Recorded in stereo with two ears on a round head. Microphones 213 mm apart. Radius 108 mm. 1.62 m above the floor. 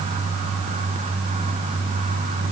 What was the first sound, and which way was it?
Only background noise.